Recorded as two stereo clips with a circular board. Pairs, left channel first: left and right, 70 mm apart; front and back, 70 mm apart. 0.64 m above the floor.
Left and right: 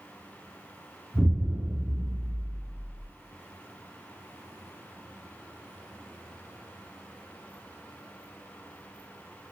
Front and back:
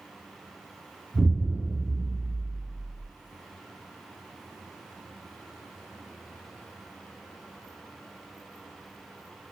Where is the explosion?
145° left, 1.2 m.